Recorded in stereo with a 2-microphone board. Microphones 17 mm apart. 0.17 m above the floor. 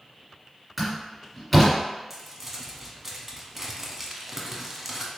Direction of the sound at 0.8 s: Centre (ahead or behind).